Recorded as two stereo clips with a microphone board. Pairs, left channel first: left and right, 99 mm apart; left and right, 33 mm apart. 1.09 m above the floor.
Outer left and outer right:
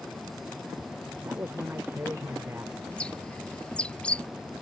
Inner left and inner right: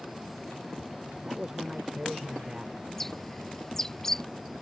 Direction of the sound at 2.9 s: 10° left (ahead or behind).